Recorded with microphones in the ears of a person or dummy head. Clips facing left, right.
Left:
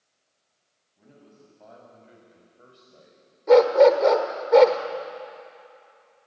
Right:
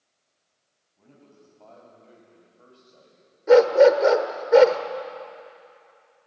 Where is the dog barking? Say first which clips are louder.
Right 1 dB; 10° right (ahead or behind), 1.4 m.